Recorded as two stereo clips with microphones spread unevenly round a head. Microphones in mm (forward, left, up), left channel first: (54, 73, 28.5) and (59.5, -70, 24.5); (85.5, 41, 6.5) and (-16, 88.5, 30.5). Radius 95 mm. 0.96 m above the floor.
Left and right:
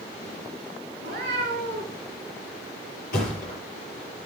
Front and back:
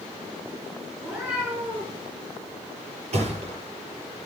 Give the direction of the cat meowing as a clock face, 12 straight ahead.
4 o'clock.